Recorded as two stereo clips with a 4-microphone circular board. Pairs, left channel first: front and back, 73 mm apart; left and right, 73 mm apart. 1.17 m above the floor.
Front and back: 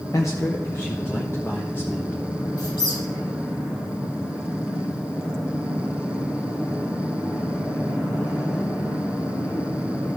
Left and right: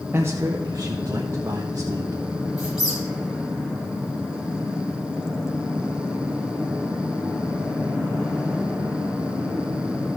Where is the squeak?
5° right, 4 m.